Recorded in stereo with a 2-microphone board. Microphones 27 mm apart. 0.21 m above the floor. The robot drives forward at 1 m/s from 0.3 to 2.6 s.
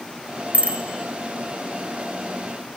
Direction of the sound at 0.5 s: 55° right (ahead or behind).